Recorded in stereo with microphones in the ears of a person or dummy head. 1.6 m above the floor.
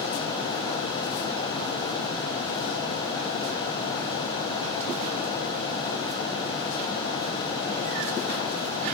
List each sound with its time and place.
Only background noise.